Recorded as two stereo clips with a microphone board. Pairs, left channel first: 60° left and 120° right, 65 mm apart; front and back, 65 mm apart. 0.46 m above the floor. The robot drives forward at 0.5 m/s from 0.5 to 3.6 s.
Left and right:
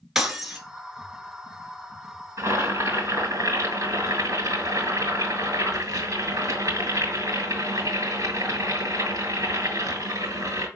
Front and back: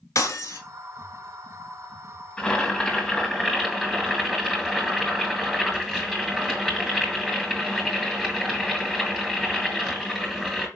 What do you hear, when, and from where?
0.1 s breaking glass: 35° right, 1.6 m
2.4 s boiling: 80° right, 2.5 m; by 10.7 s 95° right, 2.5 m